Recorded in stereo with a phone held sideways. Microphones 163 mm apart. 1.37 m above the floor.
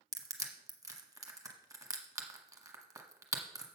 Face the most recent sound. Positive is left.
turn(degrees=-20)  # may be behind; listen again after turning